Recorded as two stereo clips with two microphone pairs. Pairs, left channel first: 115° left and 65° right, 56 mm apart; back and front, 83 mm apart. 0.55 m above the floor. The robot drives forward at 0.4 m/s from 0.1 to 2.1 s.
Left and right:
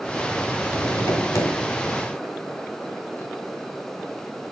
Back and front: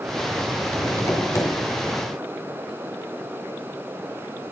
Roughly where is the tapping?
Behind left.